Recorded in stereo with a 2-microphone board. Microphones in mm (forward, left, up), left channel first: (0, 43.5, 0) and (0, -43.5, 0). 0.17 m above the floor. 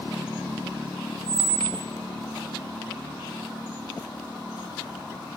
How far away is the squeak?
About 1.2 m.